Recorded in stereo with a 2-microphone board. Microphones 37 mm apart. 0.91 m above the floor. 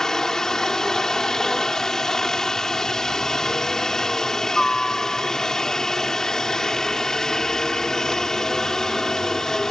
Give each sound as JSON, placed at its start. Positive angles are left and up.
{"t": 0.0, "sound": "a helicopter", "side_deg": 10}